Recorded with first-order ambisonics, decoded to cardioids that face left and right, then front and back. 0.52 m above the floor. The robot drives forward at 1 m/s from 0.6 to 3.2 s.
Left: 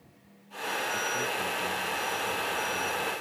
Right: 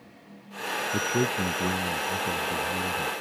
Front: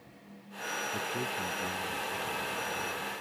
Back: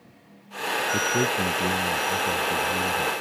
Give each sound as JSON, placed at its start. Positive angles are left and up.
{"t": 0.9, "sound": "a man speaking", "azimuth_deg": -125}